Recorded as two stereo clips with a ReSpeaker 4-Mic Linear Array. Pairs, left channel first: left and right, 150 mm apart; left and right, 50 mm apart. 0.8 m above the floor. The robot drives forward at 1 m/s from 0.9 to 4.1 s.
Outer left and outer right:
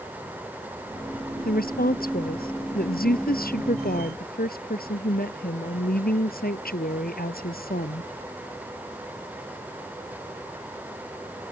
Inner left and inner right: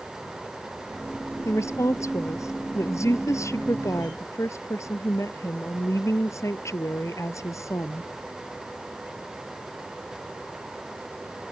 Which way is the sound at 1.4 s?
80° left.